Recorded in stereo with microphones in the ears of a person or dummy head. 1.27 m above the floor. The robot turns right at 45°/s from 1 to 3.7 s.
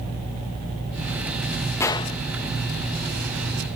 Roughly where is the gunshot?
Centre.